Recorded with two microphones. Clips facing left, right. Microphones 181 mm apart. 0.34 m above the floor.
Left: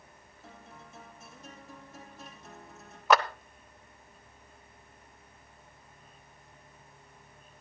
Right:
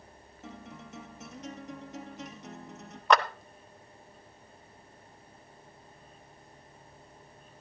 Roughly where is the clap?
Centre.